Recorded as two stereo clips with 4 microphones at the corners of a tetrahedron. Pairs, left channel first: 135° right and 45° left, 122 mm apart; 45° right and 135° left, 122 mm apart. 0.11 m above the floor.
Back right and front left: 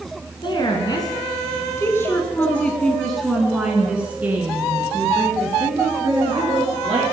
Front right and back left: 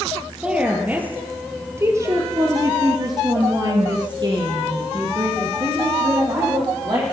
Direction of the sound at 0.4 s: 150° right.